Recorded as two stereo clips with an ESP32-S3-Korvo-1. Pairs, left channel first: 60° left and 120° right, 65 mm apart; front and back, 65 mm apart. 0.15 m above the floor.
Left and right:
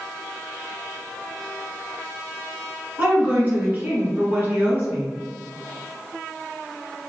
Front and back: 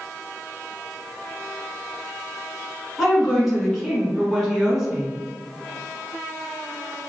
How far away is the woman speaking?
About 1.5 m.